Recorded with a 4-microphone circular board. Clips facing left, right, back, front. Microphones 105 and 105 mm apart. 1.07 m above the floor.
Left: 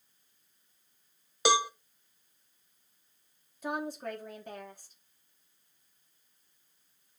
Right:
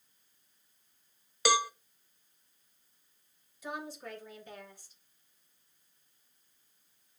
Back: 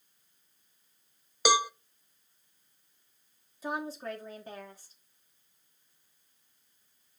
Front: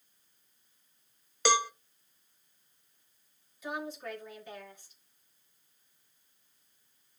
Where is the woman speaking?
130° left, 2.5 m.